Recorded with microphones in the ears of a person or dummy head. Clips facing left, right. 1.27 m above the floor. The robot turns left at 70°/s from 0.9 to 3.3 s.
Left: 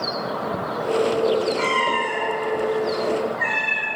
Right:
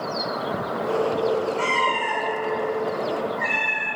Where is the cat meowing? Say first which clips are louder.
Left 2 dB; 5° right (ahead or behind), 1.0 m; by 3.9 s 40° left (ahead or behind), 1.0 m.